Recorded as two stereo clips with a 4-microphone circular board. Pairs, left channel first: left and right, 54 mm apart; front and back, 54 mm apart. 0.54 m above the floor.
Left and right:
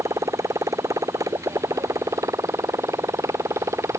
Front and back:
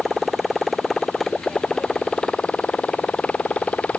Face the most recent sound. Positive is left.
turn(degrees=-65)